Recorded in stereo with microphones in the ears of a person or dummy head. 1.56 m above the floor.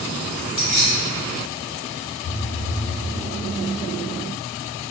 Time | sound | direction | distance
0.6 | keys jangling | 25° left (ahead or behind) | 1.0 m
2.2 | a phone buzzing | 5° left (ahead or behind) | 2.0 m